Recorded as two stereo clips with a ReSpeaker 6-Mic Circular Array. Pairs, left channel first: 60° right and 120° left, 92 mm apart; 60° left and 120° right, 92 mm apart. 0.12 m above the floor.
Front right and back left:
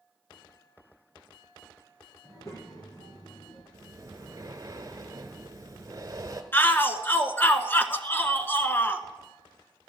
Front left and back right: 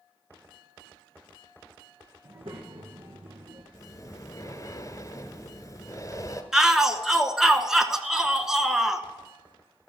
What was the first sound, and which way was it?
A child speaking, 110° right.